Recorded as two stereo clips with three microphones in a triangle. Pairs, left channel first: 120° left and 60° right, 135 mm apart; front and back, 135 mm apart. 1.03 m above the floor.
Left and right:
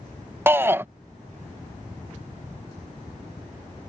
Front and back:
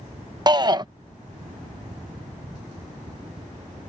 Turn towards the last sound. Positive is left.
turn(degrees=-130)